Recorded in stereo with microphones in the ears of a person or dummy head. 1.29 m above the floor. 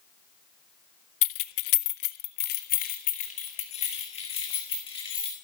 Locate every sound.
1.2 s keys jangling: 60° left (ahead or behind), 0.6 m; by 5.3 s 25° left (ahead or behind), 2 m